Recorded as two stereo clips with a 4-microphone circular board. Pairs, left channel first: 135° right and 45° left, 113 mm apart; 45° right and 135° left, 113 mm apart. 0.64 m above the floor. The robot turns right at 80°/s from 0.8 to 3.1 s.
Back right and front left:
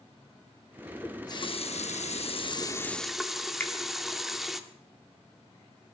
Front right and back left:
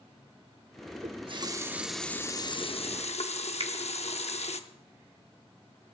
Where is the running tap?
150° left, 0.6 m; by 4.6 s 45° right, 0.6 m.